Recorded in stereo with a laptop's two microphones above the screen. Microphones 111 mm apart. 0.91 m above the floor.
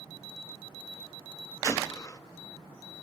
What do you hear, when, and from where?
1.6 s a gunshot: 30° left (ahead or behind), 0.9 m